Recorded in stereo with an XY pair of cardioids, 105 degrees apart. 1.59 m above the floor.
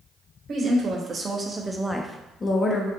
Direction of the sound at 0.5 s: 50° right.